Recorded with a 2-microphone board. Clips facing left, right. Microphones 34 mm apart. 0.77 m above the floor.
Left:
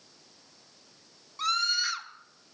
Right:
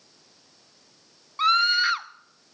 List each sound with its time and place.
1.4 s a scream: 40° right (ahead or behind), 0.8 m